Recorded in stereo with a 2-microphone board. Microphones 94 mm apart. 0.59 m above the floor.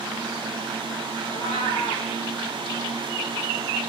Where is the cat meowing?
70° left (ahead or behind), 7 m.